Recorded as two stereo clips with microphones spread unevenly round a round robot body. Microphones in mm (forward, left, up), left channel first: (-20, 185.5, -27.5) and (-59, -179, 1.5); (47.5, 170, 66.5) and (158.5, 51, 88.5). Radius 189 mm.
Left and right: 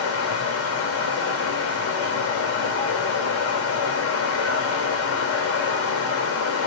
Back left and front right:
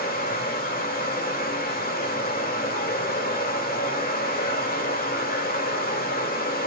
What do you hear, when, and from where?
0.0 s running water: 130° left, 2 m